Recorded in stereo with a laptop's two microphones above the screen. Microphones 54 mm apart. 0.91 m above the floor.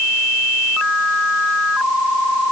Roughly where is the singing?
No singing in this recording.